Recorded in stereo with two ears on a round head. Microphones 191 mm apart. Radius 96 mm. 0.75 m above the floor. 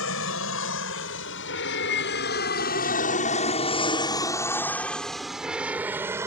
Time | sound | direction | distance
0.0 | an aircraft | 70° left (ahead or behind) | ?